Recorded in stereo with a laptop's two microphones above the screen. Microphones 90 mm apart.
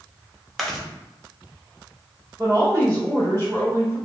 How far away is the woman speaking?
About 1.5 m.